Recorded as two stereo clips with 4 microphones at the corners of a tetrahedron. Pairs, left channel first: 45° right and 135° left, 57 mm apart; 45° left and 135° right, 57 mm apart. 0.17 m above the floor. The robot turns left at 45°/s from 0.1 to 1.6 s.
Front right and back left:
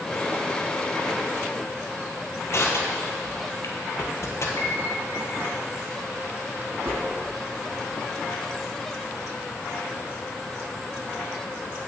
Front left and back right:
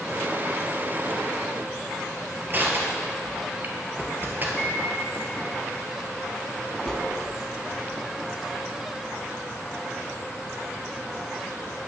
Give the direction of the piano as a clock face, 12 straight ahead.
1 o'clock.